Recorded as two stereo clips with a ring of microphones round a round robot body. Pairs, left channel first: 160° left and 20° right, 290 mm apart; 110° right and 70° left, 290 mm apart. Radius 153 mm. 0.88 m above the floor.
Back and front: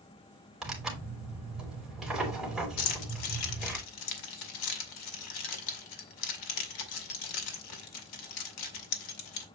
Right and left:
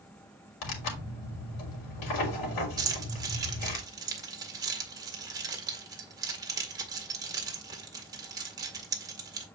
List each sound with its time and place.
0.6 s tearing paper: 110° right, 3 m
2.8 s keys jangling: 145° left, 1.9 m